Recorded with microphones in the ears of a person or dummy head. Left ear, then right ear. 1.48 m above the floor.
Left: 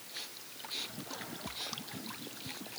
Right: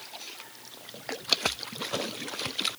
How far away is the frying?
No frying in this recording.